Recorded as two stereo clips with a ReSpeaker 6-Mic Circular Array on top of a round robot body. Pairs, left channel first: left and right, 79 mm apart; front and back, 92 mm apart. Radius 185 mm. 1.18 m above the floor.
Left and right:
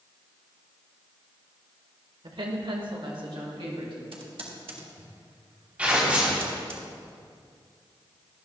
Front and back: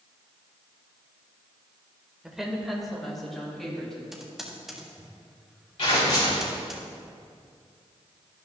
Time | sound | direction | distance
2.2 | a woman speaking | 95° right | 1.7 m
4.1 | typing on a keyboard | 95° right | 1.4 m
5.8 | tearing paper | 15° right | 3 m